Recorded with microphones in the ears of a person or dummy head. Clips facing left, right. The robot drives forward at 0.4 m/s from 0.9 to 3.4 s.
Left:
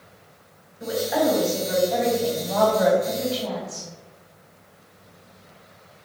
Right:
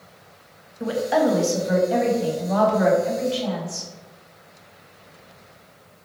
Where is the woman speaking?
60° right (ahead or behind), 0.9 m; by 3.9 s 30° right (ahead or behind), 1.6 m.